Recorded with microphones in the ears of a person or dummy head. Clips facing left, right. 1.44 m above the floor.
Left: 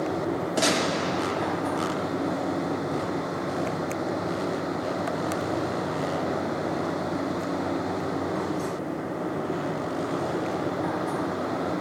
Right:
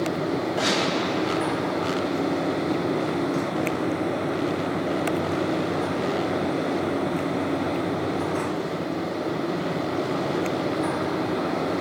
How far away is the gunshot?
About 3 m.